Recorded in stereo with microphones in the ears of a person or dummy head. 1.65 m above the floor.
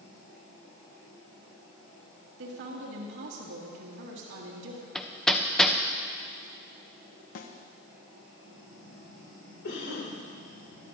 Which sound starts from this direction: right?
A woman speaking, at 2.4 s.